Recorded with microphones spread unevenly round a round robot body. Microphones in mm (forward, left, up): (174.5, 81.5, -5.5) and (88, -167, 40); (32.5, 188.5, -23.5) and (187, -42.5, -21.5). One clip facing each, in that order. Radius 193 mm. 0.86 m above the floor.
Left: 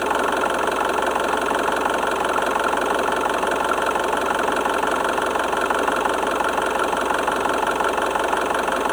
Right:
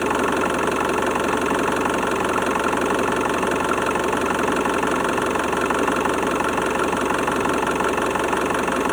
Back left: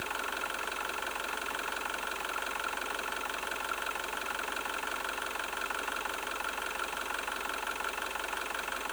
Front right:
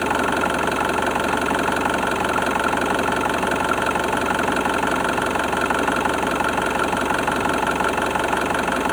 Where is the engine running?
55° right.